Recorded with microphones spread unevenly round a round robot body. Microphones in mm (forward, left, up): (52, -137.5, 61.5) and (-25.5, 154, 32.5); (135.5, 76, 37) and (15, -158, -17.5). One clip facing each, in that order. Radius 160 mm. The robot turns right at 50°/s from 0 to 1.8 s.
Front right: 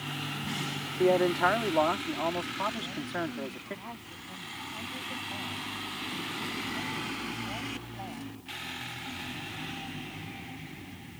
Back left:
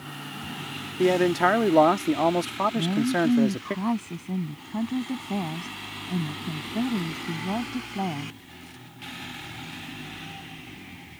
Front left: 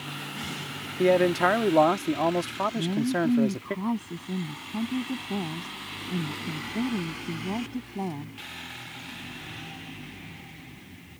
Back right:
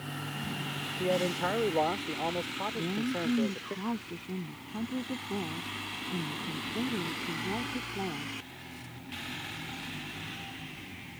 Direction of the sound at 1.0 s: 50° left.